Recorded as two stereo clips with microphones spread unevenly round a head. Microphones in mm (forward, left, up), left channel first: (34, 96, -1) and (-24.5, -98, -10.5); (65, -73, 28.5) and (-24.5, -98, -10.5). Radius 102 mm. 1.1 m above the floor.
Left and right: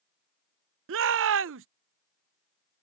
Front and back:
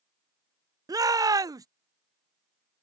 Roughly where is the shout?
Behind right.